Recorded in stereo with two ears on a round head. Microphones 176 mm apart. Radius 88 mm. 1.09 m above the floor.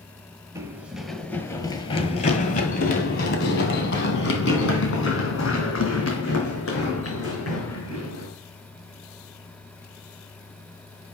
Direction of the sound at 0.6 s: 15° right (ahead or behind).